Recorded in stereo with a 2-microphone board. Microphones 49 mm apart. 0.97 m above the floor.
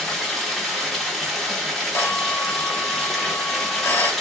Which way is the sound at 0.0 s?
5° left (ahead or behind).